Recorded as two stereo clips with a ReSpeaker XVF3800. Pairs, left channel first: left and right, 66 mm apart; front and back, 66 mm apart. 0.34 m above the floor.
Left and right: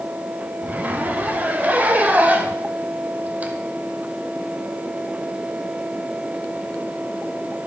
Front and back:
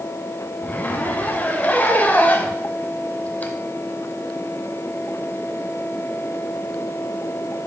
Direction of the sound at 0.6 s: 45° right.